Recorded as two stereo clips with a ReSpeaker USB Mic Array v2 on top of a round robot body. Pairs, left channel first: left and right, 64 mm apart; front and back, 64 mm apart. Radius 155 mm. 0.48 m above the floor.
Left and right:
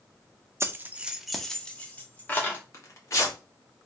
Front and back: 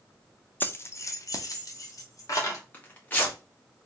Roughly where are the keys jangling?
Ahead right.